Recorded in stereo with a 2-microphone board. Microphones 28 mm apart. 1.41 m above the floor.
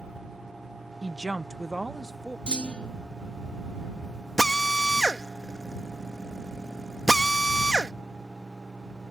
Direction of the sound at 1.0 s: 30° left (ahead or behind).